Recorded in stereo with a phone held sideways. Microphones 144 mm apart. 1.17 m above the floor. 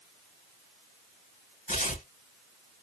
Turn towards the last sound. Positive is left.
turn(degrees=65)  # may be behind; listen again after turning